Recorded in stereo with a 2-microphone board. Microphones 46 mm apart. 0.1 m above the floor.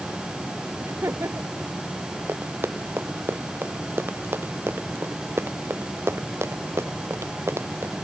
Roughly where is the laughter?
Right.